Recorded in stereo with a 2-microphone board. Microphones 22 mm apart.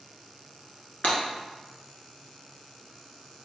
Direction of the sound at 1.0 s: 85° left.